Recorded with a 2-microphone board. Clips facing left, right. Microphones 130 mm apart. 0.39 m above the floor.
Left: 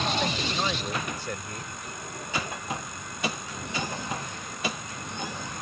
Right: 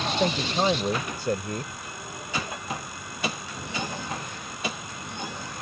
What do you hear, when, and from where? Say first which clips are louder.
0.2 s a man speaking: right 5 dB; 40° right (ahead or behind)